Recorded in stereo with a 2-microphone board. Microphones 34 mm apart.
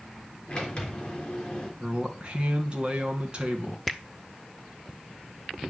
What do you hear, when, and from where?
0.5 s a sliding door: 25° left (ahead or behind), 3 m
1.8 s a man speaking: 30° right (ahead or behind), 2.5 m
3.9 s a finger snap: 5° left (ahead or behind), 1.1 m